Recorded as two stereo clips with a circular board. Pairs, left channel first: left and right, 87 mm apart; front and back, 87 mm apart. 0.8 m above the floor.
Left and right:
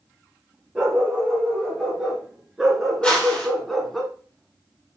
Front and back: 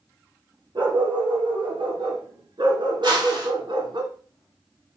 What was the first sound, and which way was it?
A dog barking, 170° right.